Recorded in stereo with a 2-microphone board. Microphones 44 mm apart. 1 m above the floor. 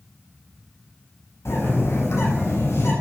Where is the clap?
No clap in this recording.